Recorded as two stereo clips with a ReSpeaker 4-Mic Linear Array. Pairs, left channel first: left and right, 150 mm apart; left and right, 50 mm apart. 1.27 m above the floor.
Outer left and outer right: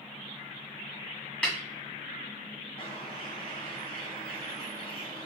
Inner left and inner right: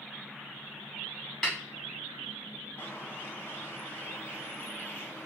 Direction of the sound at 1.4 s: 5° left (ahead or behind).